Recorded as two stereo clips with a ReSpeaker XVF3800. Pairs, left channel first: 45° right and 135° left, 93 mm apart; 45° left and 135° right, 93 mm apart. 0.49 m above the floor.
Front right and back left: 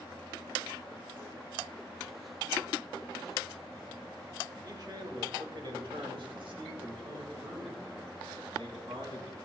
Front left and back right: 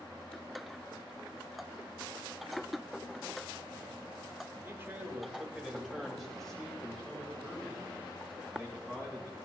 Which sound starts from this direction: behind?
A man speaking, at 4.6 s.